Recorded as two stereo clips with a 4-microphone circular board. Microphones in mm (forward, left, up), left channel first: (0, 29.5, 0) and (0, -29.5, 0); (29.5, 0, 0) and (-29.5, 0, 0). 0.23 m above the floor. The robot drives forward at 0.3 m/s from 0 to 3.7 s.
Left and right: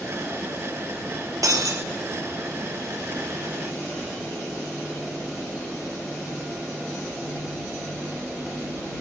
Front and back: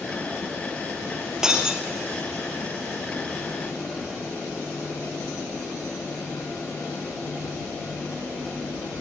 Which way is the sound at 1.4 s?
105° right.